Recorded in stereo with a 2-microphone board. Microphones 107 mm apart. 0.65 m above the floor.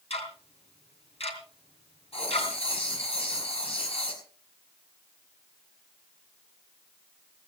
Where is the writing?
70° left (ahead or behind), 5.5 m.